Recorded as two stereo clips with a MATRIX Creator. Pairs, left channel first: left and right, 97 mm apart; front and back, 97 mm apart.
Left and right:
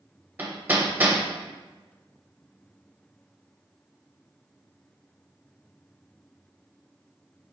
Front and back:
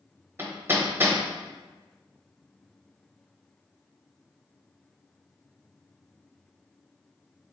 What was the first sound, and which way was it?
Hammering, 140° right.